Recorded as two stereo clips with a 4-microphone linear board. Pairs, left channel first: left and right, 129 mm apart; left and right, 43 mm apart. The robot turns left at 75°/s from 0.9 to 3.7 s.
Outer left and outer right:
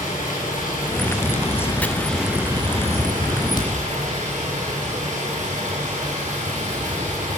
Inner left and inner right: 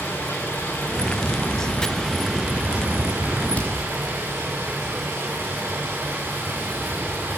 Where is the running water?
100° left, 8.5 m; by 7.4 s 110° right, 8.5 m.